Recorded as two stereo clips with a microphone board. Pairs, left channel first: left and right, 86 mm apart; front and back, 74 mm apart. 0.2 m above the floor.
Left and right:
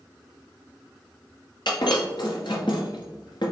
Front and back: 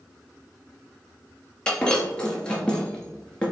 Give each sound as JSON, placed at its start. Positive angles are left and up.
{"t": 1.7, "sound": "breaking glass", "azimuth_deg": 75, "distance_m": 1.8}